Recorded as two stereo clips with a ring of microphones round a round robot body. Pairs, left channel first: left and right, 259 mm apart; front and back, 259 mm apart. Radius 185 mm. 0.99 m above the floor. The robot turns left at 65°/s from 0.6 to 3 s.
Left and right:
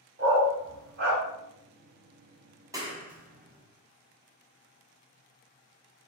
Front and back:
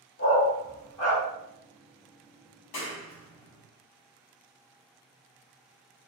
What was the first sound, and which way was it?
A dog barking, 50° right.